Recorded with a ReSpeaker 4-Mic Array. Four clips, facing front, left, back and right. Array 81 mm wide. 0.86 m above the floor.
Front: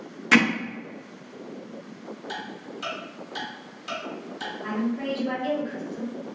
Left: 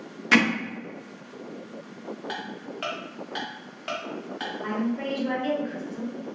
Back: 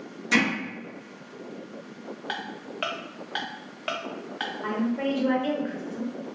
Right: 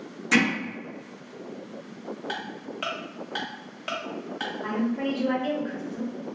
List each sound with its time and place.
0.3 s hammering: 35° left, 0.5 m
2.3 s ticking: 175° right, 0.5 m
4.6 s a woman speaking: straight behind, 0.7 m